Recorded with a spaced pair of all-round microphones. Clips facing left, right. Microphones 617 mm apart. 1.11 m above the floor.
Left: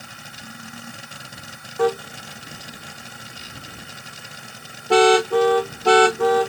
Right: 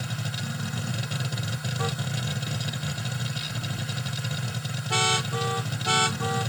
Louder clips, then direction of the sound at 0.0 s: Right 8 dB; 80° right.